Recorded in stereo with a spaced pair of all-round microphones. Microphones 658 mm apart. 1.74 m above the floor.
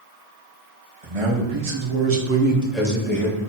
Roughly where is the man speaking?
Right.